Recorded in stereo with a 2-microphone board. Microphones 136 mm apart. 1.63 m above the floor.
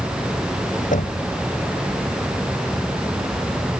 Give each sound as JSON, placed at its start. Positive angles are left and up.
{"t": 0.9, "sound": "knocking", "side_deg": 75}